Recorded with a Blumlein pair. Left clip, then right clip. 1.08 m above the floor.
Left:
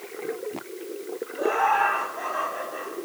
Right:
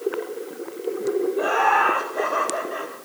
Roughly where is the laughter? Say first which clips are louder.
Right 2 dB; ahead right.